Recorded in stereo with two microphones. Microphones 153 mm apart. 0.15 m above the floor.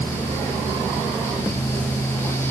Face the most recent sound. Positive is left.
No sound to turn to.